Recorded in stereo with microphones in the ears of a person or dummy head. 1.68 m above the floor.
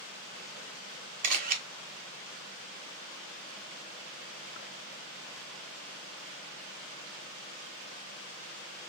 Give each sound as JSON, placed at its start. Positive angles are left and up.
{"t": 1.2, "sound": "a camera shutter", "side_deg": -45, "distance_m": 0.5}